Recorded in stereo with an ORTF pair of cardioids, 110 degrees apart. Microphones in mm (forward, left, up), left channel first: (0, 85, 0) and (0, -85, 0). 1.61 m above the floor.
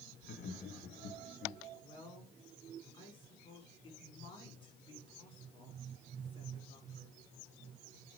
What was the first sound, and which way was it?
Laughter, 60° left.